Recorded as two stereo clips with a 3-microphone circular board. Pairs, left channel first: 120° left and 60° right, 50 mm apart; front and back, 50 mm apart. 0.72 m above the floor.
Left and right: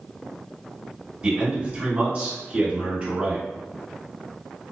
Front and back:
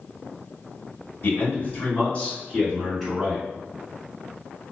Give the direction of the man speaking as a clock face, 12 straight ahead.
12 o'clock.